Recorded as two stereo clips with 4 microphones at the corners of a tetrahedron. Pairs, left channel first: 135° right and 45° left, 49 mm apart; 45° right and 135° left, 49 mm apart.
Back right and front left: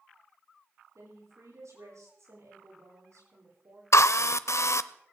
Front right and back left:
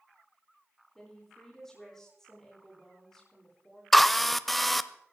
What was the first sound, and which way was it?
A woman speaking, 35° left.